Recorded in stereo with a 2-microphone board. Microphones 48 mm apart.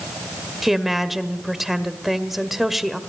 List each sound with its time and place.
0.6 s a woman speaking: 5° right (ahead or behind), 1.6 m